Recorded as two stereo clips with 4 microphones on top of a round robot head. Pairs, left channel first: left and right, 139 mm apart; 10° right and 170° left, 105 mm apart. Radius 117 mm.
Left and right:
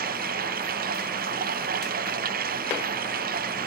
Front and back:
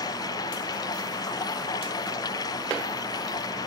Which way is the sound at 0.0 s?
70° right.